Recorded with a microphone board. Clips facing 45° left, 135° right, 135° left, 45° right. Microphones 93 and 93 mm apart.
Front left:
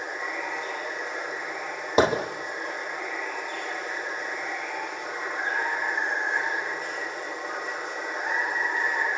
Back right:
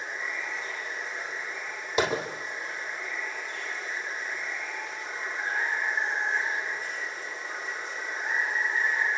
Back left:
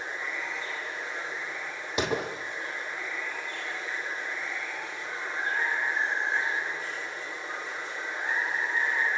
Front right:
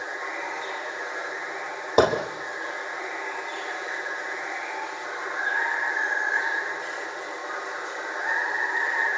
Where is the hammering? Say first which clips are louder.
Front left 6 dB, front right 9 dB; 5° right, 3.5 m.